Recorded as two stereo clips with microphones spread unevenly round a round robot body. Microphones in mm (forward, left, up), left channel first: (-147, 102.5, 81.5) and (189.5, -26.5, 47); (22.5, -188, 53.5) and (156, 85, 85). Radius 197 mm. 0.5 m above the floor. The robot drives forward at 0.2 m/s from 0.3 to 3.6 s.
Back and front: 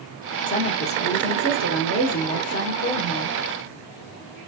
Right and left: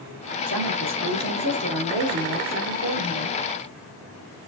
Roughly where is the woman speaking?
Left.